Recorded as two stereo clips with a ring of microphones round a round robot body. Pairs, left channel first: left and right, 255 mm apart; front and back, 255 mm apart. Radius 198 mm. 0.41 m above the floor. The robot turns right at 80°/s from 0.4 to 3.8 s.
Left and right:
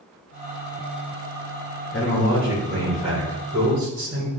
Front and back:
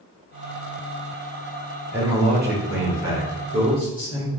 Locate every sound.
1.9 s a man speaking: 100° left, 1.5 m; by 4.3 s 115° right, 1.5 m